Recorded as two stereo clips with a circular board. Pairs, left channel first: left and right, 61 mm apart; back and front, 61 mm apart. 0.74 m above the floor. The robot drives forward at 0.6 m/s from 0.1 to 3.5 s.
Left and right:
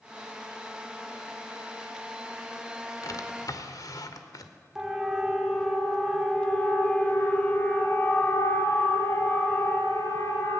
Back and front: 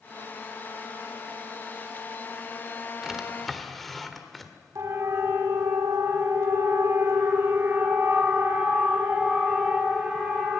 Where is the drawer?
85° left, 1.6 m; by 4.5 s 95° left, 1.5 m.